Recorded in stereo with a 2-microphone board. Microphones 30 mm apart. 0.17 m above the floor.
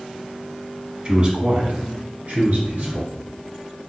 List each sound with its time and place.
1.1 s a man speaking: 25° right (ahead or behind), 1.1 m; by 3.1 s 55° right (ahead or behind), 3 m